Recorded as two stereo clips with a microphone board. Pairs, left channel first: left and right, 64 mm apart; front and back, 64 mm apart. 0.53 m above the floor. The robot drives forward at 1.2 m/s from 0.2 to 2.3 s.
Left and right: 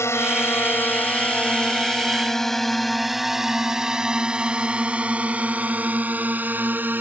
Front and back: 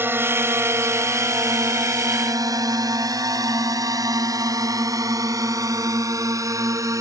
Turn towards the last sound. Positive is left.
turn(degrees=-150)